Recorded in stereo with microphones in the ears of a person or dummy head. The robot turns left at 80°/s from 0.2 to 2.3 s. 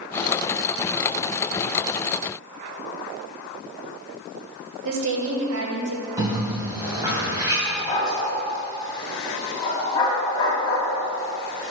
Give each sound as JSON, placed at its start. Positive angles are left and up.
{"t": 4.8, "sound": "a woman speaking", "side_deg": -70, "distance_m": 1.8}
{"t": 6.2, "sound": "a bird", "side_deg": -20, "distance_m": 3.0}
{"t": 7.7, "sound": "a dog barking", "side_deg": 25, "distance_m": 3.5}